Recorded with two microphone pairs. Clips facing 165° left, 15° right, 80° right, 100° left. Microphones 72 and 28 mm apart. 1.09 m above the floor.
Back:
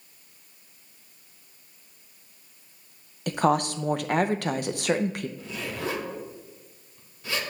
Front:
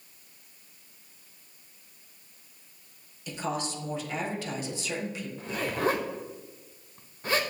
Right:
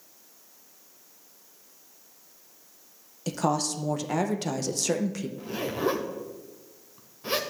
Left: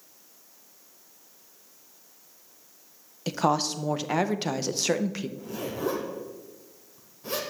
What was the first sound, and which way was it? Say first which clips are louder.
A woman speaking: back 10 dB, left 2 dB; 165° left.